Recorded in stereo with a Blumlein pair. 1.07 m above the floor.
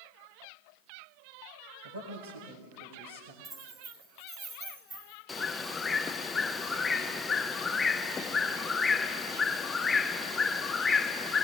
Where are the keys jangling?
15° right, 6 m.